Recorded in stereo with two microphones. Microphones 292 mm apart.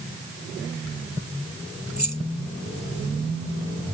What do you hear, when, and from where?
2.0 s keys jangling: 75° left (ahead or behind)